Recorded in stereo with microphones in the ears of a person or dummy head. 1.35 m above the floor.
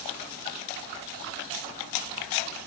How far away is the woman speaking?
I don't hear a woman speaking.